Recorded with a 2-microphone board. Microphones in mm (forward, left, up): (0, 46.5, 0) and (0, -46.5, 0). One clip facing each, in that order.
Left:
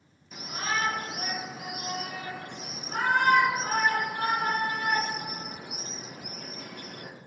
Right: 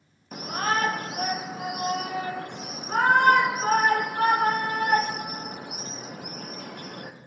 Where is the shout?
50° right (ahead or behind), 0.7 m.